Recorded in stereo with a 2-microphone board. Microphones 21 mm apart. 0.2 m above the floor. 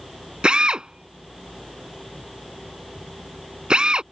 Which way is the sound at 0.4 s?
45° right (ahead or behind).